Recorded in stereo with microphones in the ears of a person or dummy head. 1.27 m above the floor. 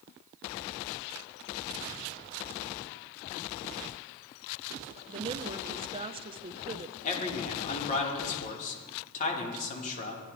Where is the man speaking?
40° left (ahead or behind), 2.5 m.